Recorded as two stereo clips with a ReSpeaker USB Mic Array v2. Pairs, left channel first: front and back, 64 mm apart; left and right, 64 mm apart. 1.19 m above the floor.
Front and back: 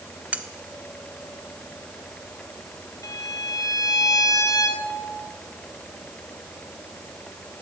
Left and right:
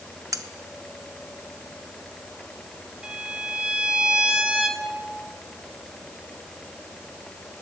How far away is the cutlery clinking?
About 1.4 m.